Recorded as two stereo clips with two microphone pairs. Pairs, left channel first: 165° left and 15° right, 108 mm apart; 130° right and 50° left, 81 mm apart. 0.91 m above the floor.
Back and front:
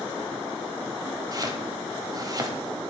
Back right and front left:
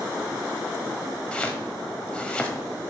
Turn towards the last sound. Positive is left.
turn(degrees=-55)